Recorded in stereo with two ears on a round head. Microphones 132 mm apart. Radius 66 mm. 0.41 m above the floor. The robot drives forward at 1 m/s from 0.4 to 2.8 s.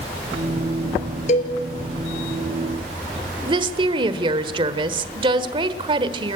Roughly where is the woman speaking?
Right.